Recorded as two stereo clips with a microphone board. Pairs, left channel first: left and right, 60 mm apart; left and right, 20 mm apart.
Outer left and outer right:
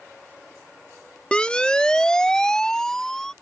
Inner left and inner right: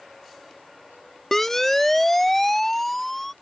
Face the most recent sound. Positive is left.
turn(degrees=5)  # may be behind; listen again after turning